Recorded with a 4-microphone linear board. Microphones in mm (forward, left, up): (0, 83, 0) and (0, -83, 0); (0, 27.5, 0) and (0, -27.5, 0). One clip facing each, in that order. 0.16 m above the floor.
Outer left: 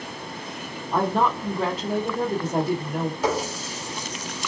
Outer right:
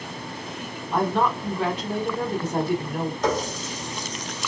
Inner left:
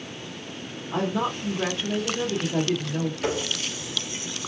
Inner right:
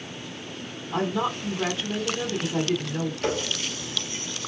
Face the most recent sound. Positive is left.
turn(degrees=10)  # may be behind; listen again after turning